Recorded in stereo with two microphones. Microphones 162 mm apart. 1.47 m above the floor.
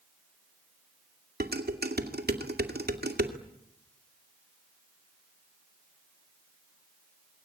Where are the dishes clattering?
80° right, 2.5 m.